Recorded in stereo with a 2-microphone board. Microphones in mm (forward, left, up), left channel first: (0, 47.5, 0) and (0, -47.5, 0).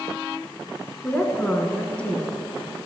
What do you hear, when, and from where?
1.0 s a woman speaking: 15° left (ahead or behind), 1.5 m; by 2.4 s 10° left (ahead or behind), 1.6 m